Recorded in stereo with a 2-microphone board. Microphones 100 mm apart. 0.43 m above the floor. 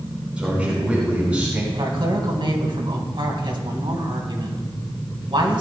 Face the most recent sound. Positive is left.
turn(degrees=-55)  # may be behind; listen again after turning